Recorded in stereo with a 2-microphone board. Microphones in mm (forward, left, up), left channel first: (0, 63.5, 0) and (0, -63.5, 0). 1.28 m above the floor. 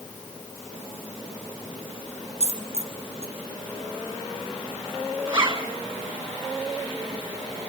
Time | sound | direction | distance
2.4 | a dropped coin | 55° right (ahead or behind) | 2.5 m
5.3 | a zipper | 40° right (ahead or behind) | 2.5 m